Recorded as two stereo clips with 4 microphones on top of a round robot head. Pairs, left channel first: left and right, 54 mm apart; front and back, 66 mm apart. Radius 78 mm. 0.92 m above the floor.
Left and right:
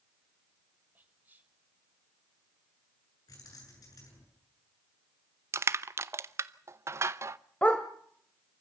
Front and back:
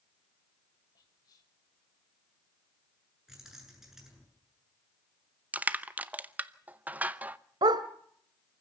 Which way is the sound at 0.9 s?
35° right.